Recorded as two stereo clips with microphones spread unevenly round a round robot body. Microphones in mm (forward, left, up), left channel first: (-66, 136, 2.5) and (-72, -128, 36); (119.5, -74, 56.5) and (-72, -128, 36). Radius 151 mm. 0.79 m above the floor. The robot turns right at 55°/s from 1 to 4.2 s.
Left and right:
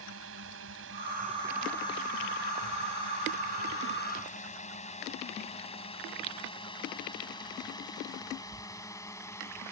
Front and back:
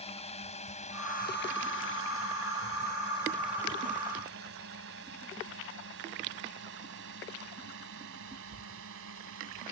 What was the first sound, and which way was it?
A drone, 40° right.